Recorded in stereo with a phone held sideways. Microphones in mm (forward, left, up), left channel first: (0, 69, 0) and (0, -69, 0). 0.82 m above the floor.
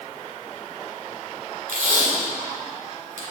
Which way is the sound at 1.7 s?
70° right (ahead or behind).